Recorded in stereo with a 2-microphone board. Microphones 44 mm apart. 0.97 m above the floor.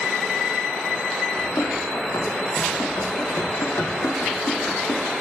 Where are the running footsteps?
80° left, 9 m.